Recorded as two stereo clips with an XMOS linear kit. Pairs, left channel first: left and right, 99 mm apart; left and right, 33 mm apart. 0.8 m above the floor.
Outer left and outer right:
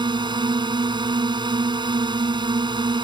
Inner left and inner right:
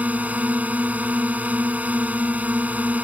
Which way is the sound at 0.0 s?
50° right (ahead or behind).